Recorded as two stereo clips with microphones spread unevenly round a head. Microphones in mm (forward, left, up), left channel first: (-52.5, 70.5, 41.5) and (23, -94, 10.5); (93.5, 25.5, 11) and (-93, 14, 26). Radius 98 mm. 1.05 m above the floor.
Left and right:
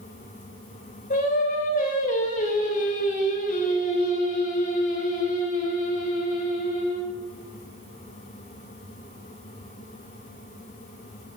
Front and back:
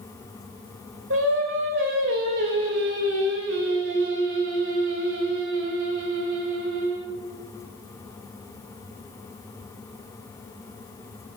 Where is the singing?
160° left, 4 m.